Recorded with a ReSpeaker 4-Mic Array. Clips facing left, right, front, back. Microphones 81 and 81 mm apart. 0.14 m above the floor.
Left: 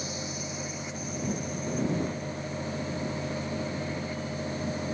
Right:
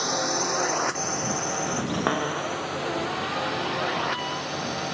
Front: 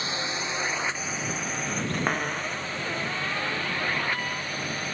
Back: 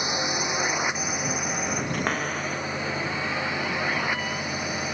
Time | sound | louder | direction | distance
0.0 | a drone | right 10 dB, back 4 dB | 105° right | ?
1.9 | a cupboard door | right 7 dB, even | 85° right | ?